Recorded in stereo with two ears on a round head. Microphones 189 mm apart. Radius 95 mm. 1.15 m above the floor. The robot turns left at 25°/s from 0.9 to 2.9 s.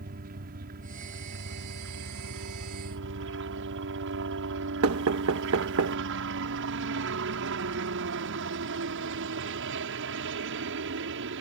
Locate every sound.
0.0 s a helicopter: 50° right; by 11.4 s 100° right
4.8 s knocking: 75° right (ahead or behind)